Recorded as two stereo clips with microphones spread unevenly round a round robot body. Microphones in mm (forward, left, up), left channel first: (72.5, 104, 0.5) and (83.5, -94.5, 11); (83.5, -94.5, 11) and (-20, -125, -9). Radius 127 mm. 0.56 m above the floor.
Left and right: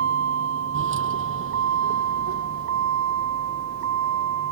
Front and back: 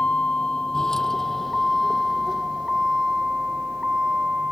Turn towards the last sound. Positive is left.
turn(degrees=-80)